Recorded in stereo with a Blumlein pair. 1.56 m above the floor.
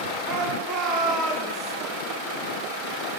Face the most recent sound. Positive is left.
turn(degrees=-20)